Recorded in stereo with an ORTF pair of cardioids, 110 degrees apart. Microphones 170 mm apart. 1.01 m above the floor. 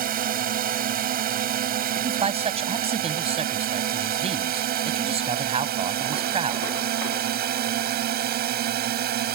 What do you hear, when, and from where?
0.0 s a drone: 60° right; by 9.4 s 65° right
2.0 s a man speaking: 35° right